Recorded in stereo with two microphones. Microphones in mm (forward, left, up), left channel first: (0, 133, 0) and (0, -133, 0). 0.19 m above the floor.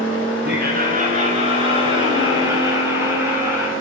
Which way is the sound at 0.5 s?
40° right (ahead or behind).